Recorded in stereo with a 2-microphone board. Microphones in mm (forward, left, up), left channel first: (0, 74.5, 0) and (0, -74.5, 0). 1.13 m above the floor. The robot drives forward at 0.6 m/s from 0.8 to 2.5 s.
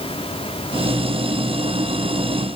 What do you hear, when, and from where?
Only background noise.